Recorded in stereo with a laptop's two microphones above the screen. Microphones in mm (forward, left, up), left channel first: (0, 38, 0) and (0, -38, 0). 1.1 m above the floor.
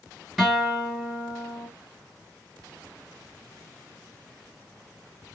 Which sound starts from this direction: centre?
A guitar, at 0.4 s.